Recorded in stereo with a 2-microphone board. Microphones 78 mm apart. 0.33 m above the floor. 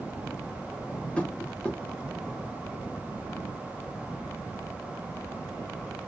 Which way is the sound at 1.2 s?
15° left (ahead or behind).